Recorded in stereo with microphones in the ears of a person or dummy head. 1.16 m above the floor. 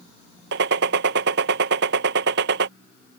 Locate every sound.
0.5 s a gunshot: 60° right (ahead or behind)